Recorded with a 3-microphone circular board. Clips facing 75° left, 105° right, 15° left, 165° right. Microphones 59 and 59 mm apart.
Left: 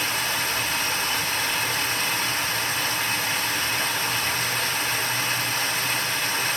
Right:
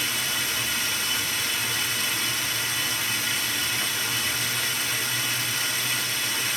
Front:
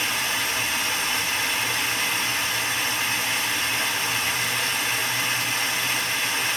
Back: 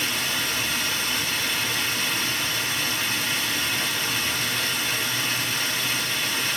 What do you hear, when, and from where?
0.0 s running water: 75° left, 1.6 m